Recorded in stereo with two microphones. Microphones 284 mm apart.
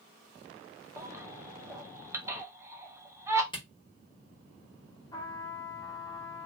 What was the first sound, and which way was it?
A baby crying, 10° right (ahead or behind).